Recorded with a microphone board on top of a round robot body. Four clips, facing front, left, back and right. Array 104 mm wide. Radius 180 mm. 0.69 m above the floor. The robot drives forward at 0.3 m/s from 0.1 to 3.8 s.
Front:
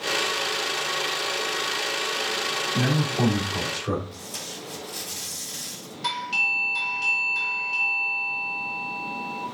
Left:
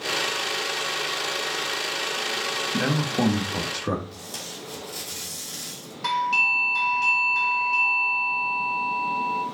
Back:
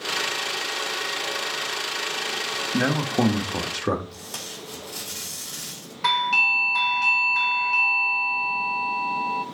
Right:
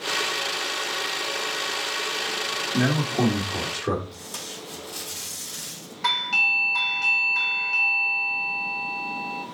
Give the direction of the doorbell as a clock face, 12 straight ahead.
5 o'clock.